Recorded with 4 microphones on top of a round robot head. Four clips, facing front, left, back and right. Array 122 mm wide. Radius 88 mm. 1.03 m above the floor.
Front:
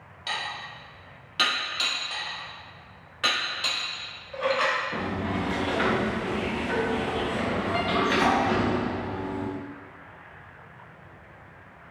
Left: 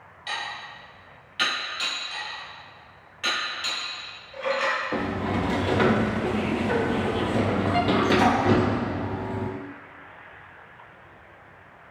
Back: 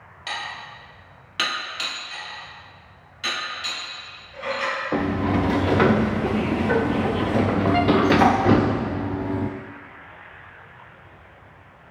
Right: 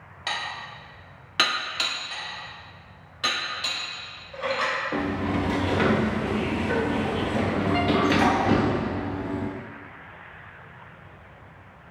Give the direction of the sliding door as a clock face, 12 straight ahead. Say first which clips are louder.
Right 1 dB, back 7 dB; 6 o'clock.